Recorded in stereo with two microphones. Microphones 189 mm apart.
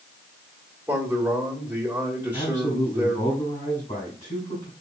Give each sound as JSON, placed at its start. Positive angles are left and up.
{"t": 0.9, "sound": "a man speaking", "side_deg": -10, "distance_m": 1.6}
{"t": 2.3, "sound": "a man speaking", "side_deg": 40, "distance_m": 1.9}